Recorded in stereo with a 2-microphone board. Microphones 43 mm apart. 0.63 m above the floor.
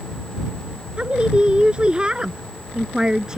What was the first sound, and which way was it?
A woman speaking, 25° right (ahead or behind).